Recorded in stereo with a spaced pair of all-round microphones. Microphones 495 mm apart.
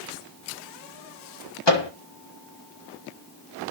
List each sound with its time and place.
1.7 s a microwave: 55° left (ahead or behind), 1.4 m